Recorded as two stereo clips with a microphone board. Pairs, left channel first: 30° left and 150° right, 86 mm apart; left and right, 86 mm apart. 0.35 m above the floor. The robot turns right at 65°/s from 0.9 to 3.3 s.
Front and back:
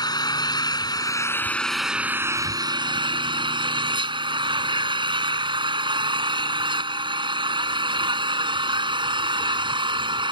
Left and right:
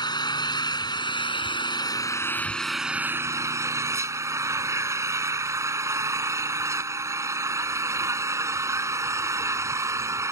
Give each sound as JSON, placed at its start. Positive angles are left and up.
{"t": 0.0, "sound": "an engine running", "azimuth_deg": 65}